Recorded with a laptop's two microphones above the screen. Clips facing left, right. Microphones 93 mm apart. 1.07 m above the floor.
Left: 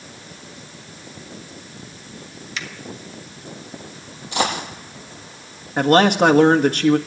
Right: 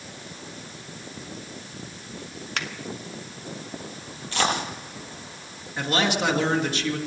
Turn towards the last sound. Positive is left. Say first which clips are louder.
# left 10 dB
turn(degrees=55)  # may be behind; listen again after turning